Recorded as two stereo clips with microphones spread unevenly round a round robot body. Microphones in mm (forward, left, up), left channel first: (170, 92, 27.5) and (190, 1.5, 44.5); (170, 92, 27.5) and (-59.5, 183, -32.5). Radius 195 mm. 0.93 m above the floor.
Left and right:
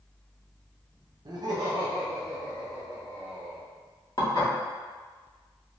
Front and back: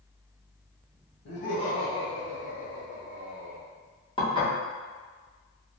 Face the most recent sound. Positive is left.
turn(degrees=50)